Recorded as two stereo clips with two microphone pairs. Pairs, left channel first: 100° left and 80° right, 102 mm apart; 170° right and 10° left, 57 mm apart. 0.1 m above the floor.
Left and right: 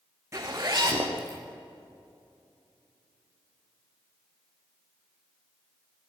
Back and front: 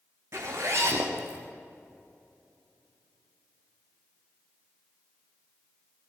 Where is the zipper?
20° right, 4 m.